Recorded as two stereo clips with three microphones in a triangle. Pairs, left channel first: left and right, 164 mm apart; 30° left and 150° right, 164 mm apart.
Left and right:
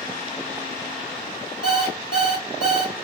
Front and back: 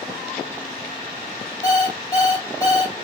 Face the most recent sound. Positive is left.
turn(degrees=75)